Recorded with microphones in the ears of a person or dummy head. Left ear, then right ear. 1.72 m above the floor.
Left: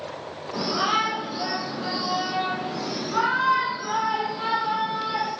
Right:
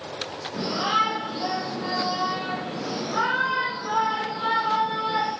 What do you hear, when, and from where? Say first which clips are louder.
0.5 s a shout: even; 70° left (ahead or behind), 3.5 m; by 5.3 s 15° left (ahead or behind), 4.5 m